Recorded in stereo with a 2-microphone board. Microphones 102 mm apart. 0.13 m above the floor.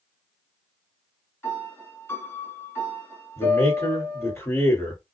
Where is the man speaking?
30° left (ahead or behind), 1.9 m.